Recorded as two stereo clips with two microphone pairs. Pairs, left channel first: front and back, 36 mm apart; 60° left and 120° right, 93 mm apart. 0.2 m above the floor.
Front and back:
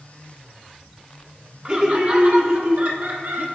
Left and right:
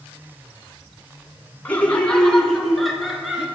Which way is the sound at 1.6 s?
130° left.